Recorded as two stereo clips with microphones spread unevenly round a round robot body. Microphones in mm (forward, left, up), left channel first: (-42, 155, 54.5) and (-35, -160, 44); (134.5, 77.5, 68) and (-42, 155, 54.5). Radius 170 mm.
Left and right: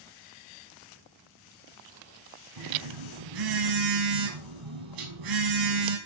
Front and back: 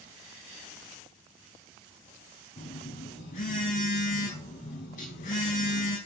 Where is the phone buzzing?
85° right, 5 m.